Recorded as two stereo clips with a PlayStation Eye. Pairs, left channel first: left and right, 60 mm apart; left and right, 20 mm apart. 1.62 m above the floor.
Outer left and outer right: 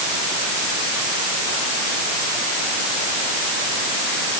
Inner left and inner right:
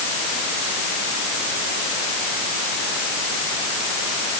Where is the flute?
No flute in this recording.